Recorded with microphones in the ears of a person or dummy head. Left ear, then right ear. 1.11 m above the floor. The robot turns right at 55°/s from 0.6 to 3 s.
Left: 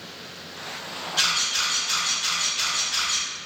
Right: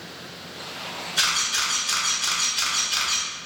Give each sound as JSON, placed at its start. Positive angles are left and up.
{"t": 1.2, "sound": "a camera shutter", "side_deg": -35, "distance_m": 1.2}